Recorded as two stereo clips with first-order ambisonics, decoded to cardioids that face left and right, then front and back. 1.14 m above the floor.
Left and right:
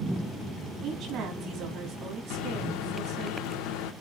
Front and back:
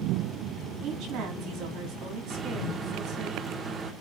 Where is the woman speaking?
140° right, 3 m.